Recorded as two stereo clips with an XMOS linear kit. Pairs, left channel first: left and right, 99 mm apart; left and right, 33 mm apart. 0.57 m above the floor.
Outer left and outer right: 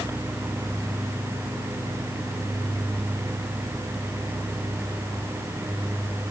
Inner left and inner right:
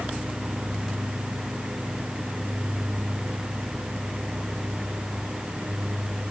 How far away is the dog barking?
No dog barking in this recording.